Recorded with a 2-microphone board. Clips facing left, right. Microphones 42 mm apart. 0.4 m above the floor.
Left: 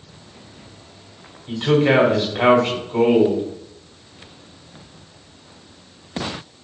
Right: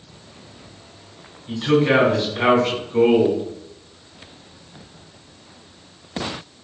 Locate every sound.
1.5 s a man speaking: 45° left (ahead or behind), 1.8 m